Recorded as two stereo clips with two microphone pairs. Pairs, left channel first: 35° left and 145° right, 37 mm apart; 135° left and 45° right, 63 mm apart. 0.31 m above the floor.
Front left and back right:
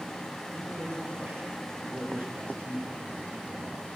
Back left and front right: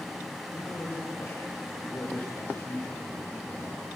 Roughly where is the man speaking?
Behind.